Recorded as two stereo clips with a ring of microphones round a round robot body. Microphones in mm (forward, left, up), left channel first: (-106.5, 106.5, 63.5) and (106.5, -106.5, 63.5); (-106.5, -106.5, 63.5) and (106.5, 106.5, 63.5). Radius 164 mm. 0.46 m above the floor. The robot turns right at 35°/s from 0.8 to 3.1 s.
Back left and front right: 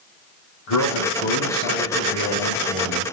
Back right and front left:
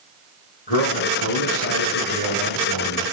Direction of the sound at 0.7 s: 165° left.